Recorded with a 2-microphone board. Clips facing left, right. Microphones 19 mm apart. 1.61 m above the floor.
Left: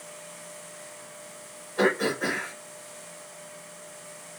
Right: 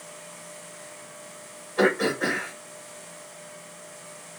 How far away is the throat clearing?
About 3.5 m.